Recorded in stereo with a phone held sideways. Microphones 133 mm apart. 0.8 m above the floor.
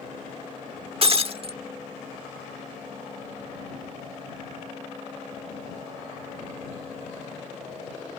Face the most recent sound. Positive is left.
turn(degrees=-45)  # may be behind; listen again after turning